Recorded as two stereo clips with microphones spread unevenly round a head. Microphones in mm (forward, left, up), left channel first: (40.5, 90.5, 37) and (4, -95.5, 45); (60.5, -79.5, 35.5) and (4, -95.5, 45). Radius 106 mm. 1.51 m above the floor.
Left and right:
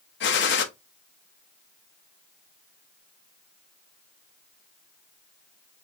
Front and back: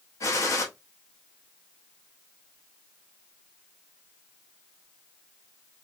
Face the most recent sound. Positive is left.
turn(degrees=55)